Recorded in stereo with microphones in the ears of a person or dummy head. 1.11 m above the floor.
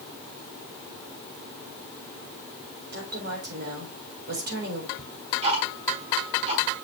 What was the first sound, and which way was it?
A woman speaking, 55° right (ahead or behind).